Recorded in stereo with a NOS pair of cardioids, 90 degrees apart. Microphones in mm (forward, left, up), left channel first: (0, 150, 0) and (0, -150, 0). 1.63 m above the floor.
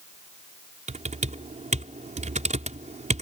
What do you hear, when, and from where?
0.9 s typing on a keyboard: 25° right